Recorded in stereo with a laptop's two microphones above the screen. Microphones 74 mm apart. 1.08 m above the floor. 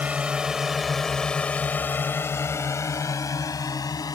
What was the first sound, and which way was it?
A drone, 20° right (ahead or behind).